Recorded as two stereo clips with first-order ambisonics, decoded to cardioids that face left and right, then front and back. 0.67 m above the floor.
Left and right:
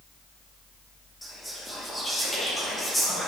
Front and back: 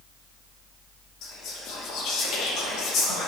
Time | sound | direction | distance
1.2 | whispering | 5° left | 1.0 m